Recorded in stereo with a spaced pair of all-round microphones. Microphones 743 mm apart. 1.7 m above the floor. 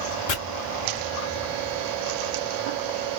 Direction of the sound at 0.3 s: 80° left.